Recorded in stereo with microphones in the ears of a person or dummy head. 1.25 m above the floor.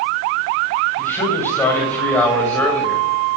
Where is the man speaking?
15° left (ahead or behind), 8.5 m; by 3.1 s 10° left (ahead or behind), 7 m.